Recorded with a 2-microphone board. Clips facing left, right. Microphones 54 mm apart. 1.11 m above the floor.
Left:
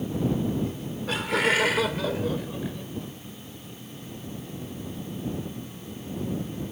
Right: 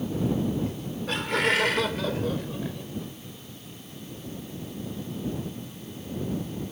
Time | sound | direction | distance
0.7 | laughter | 5° left (ahead or behind) | ?